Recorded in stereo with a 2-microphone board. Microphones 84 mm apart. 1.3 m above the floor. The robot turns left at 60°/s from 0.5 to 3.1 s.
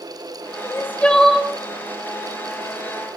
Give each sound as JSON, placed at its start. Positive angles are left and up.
{"t": 0.6, "sound": "crying", "azimuth_deg": 40, "distance_m": 0.9}